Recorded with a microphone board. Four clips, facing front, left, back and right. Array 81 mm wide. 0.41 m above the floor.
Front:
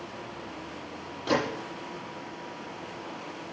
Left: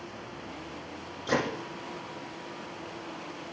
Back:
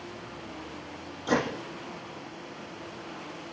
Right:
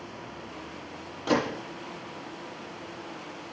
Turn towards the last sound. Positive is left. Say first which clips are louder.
# right 3 dB, even
turn(degrees=-65)